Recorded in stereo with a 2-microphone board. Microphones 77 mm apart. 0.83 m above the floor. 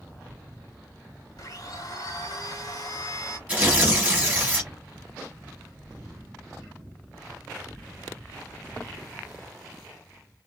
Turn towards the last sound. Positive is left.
turn(degrees=-20)  # may be behind; listen again after turning